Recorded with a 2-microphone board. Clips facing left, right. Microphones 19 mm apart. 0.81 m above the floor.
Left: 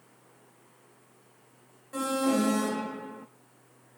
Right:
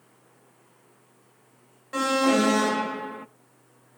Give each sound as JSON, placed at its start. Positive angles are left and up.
{"t": 1.9, "sound": "an alarm", "side_deg": -35, "distance_m": 0.6}